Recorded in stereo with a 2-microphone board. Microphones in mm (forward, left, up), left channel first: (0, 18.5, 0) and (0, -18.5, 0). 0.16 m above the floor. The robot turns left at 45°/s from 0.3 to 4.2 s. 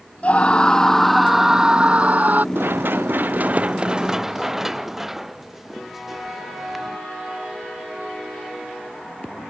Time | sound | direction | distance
0.2 | a scream | 40° left | ?
2.5 | running footsteps | 85° right | ?